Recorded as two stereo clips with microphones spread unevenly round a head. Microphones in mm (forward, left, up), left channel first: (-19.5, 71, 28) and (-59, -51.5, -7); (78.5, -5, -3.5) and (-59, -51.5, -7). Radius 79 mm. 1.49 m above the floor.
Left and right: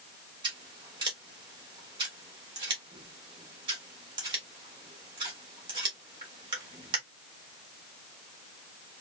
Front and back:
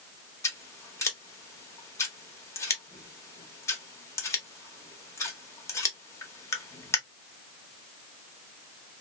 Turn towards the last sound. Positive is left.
turn(degrees=-40)